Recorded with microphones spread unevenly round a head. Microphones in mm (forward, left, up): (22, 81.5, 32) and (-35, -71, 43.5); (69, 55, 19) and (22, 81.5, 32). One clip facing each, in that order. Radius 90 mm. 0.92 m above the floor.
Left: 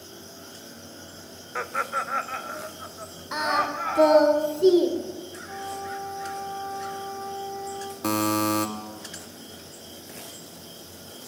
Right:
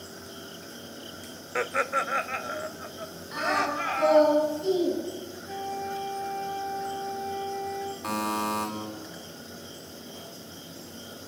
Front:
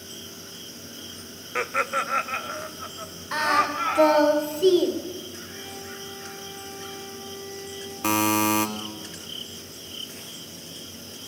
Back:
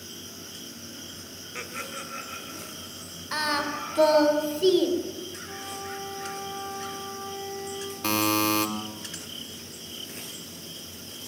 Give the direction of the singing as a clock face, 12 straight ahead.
10 o'clock.